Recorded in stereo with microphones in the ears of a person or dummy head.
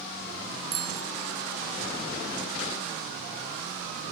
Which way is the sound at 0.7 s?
30° right (ahead or behind).